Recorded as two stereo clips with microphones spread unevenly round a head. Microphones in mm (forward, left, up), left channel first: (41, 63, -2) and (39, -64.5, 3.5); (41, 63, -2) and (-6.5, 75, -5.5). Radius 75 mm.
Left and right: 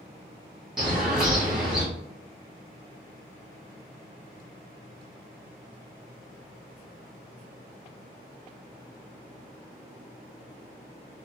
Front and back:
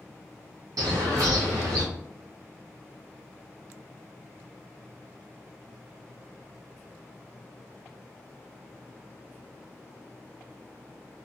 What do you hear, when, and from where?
0.8 s a bird: straight behind, 0.8 m